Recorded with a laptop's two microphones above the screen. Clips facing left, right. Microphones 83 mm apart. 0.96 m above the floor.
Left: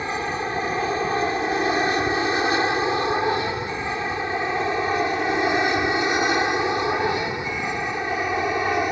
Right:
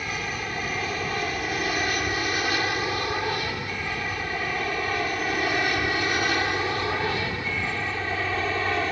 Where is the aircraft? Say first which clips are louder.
Left 6 dB; 25° left (ahead or behind); by 8.9 s 15° left (ahead or behind).